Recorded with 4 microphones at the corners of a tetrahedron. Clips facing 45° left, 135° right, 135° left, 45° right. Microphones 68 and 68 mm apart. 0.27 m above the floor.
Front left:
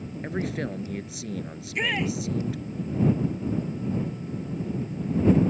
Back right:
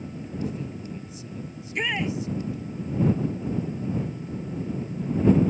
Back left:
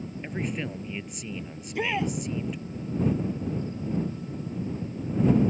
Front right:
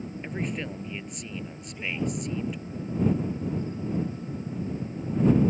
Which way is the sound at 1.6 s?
135° left.